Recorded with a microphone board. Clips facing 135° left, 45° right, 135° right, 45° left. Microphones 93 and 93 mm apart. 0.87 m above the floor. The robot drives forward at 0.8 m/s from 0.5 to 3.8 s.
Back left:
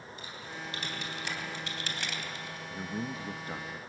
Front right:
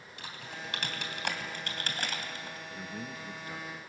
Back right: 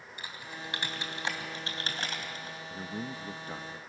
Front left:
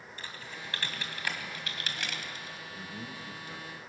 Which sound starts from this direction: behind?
A man speaking, at 2.7 s.